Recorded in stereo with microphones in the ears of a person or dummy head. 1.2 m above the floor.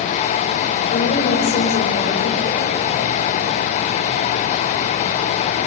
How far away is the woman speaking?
About 5 m.